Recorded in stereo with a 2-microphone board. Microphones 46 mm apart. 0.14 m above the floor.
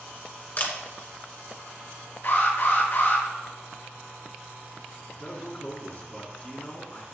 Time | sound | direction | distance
0.6 | a camera shutter | 40° left (ahead or behind) | 1.7 m
2.2 | an alarm | 50° left (ahead or behind) | 4.5 m
5.1 | a man speaking | 35° left (ahead or behind) | 2 m